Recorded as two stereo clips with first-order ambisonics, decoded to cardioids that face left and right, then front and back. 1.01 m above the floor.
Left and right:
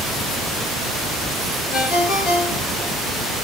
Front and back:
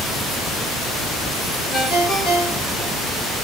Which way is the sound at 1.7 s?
65° left.